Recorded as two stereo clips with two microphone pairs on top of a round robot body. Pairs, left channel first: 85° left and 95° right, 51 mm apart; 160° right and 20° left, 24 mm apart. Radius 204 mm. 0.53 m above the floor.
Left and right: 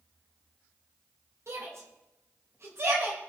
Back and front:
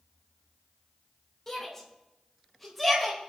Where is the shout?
85° right, 4 m; by 3.3 s 70° right, 4.5 m.